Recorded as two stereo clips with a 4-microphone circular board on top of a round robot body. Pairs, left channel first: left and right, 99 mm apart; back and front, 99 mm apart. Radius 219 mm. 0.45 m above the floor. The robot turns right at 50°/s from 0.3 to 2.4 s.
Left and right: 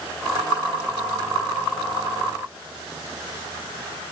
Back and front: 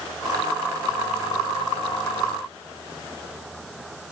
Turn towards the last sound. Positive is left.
No sound to turn to.